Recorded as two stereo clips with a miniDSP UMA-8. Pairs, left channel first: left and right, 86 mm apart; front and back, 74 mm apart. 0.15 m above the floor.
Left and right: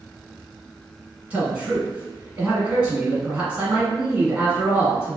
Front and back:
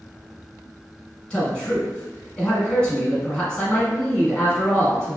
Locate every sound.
1.3 s a man speaking: 50° right, 1.1 m